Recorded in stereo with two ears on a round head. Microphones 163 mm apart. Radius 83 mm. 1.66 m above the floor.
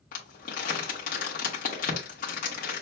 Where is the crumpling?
50° left (ahead or behind), 1.5 m.